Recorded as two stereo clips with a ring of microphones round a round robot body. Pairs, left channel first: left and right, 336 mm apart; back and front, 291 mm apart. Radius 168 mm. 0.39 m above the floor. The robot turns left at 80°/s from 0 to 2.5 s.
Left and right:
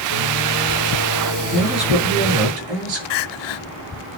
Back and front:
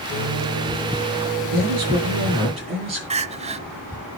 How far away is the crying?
About 0.7 m.